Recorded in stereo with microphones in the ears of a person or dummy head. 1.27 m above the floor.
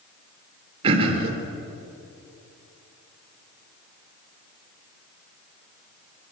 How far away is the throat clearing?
About 3 m.